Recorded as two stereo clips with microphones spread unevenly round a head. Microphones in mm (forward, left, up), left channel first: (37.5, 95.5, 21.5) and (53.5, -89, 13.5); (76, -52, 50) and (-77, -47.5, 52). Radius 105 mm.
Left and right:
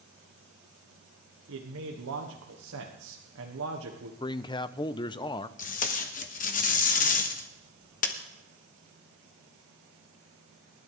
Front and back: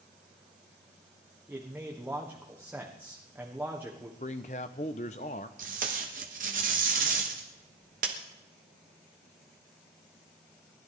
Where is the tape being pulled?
135° left, 1.1 m.